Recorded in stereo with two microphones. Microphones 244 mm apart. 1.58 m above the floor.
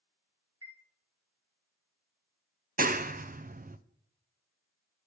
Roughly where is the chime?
Left.